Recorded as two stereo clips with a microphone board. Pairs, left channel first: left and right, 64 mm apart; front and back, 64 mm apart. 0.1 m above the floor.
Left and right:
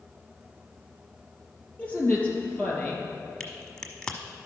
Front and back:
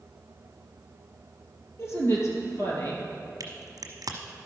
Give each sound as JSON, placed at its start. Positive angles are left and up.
{"t": 1.8, "sound": "a woman speaking", "azimuth_deg": 25, "distance_m": 2.5}
{"t": 3.4, "sound": "a crack", "azimuth_deg": 165, "distance_m": 1.1}